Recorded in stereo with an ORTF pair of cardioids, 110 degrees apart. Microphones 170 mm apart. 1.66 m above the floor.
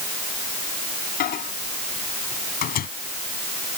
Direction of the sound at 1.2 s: 60° left.